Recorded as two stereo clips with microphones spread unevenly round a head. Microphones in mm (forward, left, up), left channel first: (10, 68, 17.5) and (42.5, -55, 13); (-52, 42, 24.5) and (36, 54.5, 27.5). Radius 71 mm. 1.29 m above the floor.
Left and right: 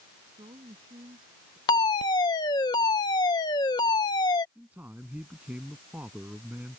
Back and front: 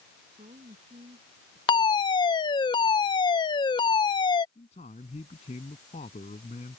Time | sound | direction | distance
0.2 | a woman speaking | 20° right | ?
1.7 | a fire alarm | 165° left | ?
4.5 | a man speaking | 155° right | ?